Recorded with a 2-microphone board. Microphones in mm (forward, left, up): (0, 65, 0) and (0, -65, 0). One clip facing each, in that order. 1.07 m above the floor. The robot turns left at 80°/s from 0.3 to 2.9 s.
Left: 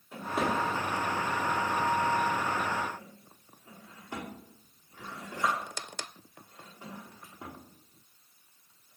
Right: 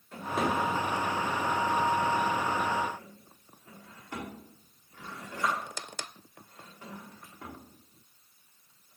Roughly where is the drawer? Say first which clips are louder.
Right 1 dB; centre.